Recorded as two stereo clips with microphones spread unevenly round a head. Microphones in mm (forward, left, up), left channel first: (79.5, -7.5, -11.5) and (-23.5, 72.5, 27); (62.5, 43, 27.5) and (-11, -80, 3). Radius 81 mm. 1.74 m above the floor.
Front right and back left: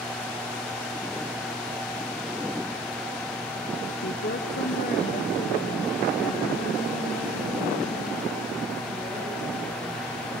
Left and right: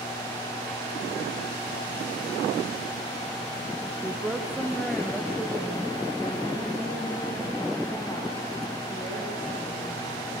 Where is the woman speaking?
40° right, 0.8 m; by 10.2 s 15° right, 4 m.